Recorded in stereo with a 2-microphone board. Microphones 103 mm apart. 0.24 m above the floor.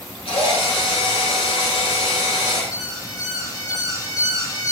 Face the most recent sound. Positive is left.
turn(degrees=35)  # may be behind; listen again after turning